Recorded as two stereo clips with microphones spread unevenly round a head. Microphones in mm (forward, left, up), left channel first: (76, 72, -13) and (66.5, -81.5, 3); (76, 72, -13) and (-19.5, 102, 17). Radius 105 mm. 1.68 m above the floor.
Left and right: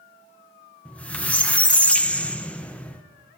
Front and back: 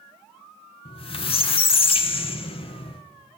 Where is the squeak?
Straight ahead, 0.9 m.